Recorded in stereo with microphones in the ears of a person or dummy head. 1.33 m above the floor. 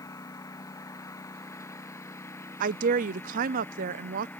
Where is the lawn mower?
10° left (ahead or behind); by 4.4 s 5° left (ahead or behind).